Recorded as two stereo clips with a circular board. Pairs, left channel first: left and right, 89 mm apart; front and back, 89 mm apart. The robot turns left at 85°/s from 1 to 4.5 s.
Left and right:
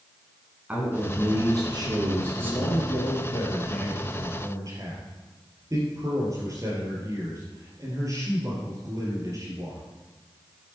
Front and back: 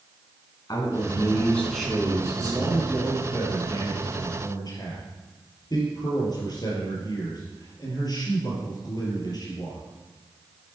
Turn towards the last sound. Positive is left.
turn(degrees=-40)